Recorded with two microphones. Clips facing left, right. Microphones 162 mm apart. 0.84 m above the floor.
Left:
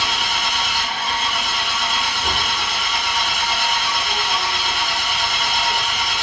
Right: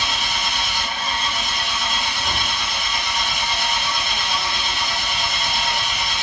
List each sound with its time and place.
0.0 s an engine running: 55° left (ahead or behind), 1.9 m